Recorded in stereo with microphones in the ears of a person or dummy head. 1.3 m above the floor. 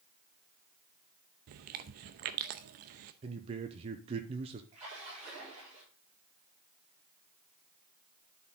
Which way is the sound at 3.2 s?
30° right (ahead or behind).